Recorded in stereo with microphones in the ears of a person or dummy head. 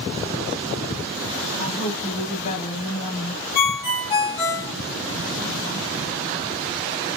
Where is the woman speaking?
30° left (ahead or behind), 0.8 m.